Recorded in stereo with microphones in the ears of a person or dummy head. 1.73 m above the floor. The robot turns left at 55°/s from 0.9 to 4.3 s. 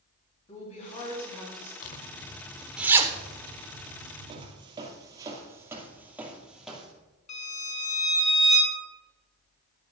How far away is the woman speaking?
About 3 m.